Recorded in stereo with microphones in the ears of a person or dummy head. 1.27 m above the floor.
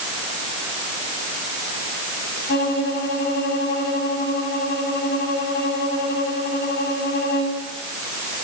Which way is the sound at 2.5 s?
50° left (ahead or behind).